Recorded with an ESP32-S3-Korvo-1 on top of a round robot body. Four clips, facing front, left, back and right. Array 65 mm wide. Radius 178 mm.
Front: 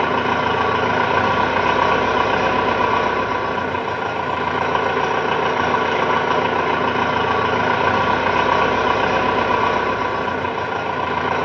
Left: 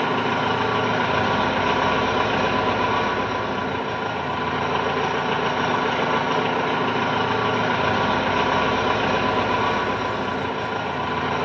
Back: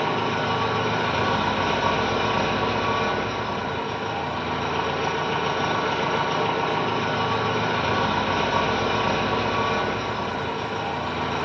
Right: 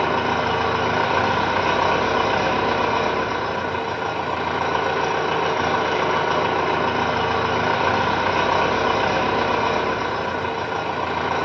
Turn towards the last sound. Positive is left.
turn(degrees=-10)